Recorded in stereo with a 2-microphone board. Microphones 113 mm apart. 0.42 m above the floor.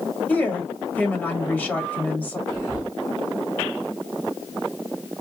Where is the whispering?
30° left (ahead or behind), 2.5 m.